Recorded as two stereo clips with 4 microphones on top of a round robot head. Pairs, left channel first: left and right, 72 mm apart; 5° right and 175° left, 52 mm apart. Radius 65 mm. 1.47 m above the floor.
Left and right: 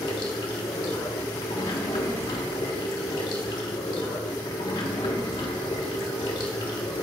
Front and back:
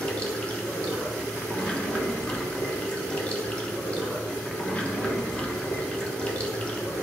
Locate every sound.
0.0 s running water: 65° left, 1.2 m